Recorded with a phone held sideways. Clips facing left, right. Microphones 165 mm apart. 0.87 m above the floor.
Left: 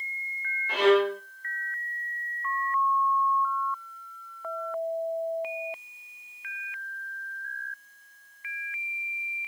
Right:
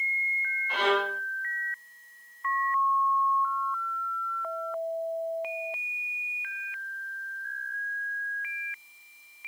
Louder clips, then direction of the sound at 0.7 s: Left 7 dB; 80° left.